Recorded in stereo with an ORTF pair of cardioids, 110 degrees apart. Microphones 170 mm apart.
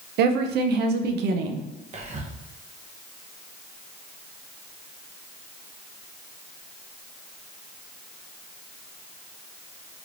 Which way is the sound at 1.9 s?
40° right.